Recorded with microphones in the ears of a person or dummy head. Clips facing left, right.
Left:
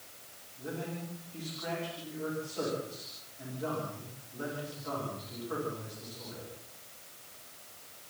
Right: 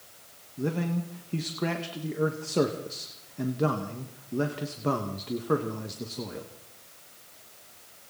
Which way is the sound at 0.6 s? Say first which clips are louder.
Right 9 dB; 75° right (ahead or behind).